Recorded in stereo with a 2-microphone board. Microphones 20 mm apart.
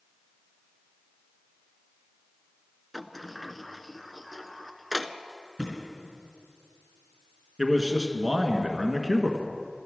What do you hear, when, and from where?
2.9 s a sliding door: centre (ahead or behind), 0.5 m
5.6 s a thud: 5° right (ahead or behind), 4.5 m
7.6 s a man speaking: 10° right (ahead or behind), 1.4 m